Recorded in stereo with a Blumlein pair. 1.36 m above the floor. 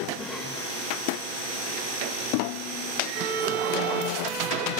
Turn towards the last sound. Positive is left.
turn(degrees=-35)